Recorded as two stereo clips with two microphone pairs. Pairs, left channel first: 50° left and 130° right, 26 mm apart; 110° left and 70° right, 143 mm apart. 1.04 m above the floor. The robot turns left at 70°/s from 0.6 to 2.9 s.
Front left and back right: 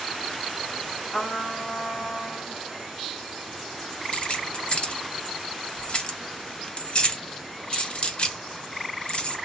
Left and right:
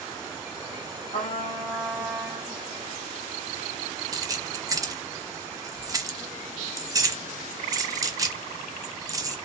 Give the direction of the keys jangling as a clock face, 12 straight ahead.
12 o'clock.